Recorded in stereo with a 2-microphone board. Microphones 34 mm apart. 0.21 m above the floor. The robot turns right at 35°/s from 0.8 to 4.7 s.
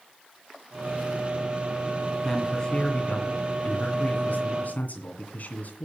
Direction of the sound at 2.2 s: 15° left.